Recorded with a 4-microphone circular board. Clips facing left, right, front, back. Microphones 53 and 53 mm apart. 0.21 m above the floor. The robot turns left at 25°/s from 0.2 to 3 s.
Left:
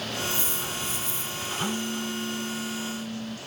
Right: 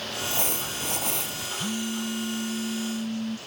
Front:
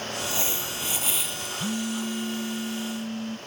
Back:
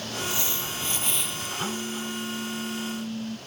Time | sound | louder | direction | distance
0.2 | crumpling | even, even | 60° right | ?
1.6 | a phone buzzing | even, front 4 dB | 35° right | ?